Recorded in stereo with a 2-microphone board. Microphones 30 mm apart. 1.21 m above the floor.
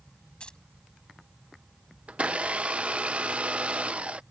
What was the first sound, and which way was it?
Keys jangling, 30° left (ahead or behind).